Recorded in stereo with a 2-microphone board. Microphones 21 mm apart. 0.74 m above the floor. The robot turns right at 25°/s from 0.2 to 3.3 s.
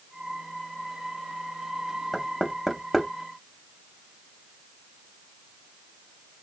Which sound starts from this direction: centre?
Knocking, at 2.1 s.